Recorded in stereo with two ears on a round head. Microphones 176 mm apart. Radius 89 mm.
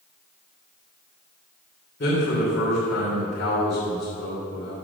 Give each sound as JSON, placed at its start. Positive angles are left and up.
{"t": 2.0, "sound": "a man speaking", "side_deg": 50, "distance_m": 3.0}